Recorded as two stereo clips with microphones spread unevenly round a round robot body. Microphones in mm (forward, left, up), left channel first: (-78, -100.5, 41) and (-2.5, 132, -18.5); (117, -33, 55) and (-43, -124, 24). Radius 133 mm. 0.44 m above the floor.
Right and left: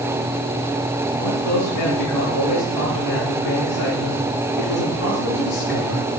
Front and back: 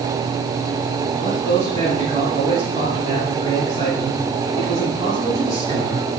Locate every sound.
1.1 s a man speaking: 95° right, 4 m